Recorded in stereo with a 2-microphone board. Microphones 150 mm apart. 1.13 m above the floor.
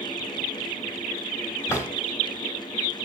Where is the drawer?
20° left (ahead or behind), 2 m.